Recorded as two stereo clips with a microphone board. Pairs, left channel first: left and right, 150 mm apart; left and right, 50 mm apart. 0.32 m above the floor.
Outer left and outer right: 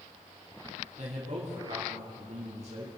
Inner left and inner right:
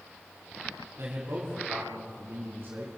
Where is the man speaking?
55° right (ahead or behind), 4 m.